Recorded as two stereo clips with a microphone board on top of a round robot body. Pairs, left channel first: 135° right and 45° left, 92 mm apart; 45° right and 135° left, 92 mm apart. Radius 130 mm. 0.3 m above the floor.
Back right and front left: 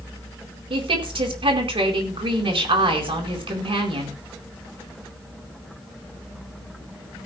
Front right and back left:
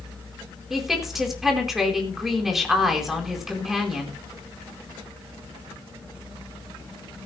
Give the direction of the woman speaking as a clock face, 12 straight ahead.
10 o'clock.